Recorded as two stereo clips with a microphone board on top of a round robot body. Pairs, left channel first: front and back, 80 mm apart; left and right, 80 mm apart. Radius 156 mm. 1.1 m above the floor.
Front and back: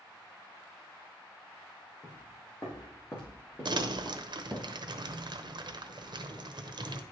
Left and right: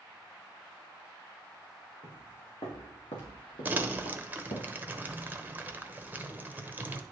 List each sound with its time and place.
2.0 s footsteps: 50° left, 3.5 m; by 4.7 s 90° left, 2.5 m
3.6 s crumpling: 160° right, 1.0 m